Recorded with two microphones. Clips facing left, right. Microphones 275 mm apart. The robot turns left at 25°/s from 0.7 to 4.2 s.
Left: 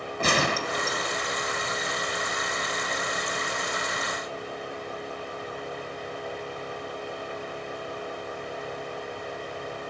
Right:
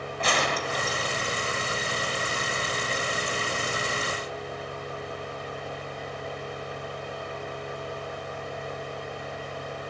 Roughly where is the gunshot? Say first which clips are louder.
Left 2 dB; left.